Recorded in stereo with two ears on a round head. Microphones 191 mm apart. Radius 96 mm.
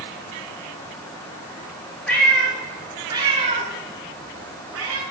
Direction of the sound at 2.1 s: 5° left (ahead or behind).